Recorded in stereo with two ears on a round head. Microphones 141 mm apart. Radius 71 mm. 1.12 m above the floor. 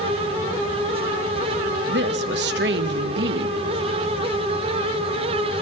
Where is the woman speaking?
75° right (ahead or behind), 1.0 m.